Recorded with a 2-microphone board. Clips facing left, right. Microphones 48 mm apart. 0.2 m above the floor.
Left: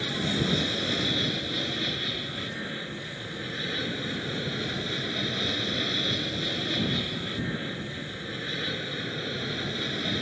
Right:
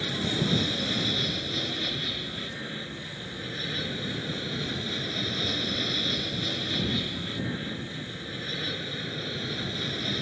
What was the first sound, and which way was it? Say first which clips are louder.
An aircraft: left 1 dB; 10° left (ahead or behind).